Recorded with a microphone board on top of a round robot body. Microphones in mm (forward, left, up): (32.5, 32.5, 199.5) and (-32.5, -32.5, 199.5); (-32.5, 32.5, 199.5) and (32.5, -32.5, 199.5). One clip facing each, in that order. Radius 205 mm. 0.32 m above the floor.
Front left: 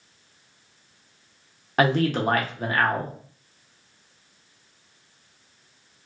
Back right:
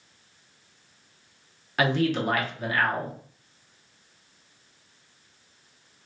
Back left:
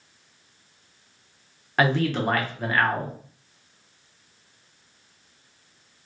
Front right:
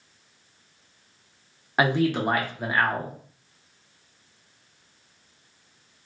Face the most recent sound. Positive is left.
turn(degrees=25)